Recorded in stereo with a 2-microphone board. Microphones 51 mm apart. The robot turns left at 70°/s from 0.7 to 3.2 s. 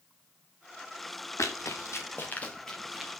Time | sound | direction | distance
1.4 | running footsteps | 90° left | 3 m